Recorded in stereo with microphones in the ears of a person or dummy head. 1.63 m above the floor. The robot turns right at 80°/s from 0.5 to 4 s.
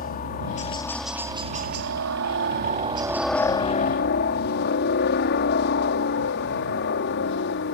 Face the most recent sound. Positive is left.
turn(degrees=60)  # may be behind; listen again after turning